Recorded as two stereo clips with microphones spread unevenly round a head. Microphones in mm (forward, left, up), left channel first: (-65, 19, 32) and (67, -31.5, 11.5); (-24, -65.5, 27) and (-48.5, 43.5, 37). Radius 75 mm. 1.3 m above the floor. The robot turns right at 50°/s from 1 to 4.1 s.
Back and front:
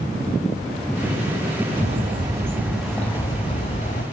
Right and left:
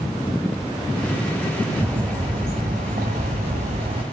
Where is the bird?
20° left, 2.5 m; by 4.0 s 135° left, 2.5 m.